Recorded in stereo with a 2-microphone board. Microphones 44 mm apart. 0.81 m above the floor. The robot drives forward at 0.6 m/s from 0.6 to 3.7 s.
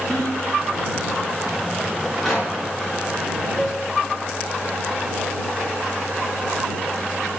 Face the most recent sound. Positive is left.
turn(degrees=10)  # may be behind; listen again after turning